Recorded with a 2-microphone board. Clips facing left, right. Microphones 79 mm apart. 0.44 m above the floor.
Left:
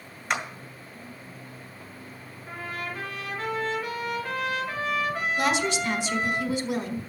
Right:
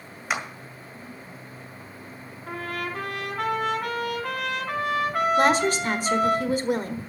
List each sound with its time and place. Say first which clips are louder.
0.3 s a clap: even; 5° right (ahead or behind), 1.8 m
2.5 s a trumpet: right 4 dB; 65° right (ahead or behind), 3 m
5.4 s a woman speaking: right 4 dB; 45° right (ahead or behind), 1.5 m